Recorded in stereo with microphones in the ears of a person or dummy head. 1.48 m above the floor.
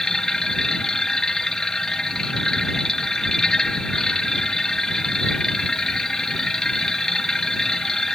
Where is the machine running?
10° left (ahead or behind).